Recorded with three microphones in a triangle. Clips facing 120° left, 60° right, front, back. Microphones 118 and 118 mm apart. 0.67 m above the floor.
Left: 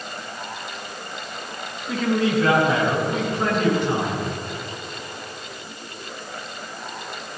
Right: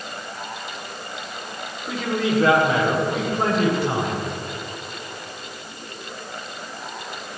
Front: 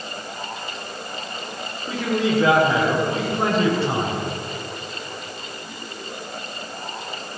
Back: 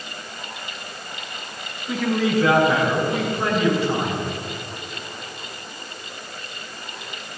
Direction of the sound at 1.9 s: Straight ahead.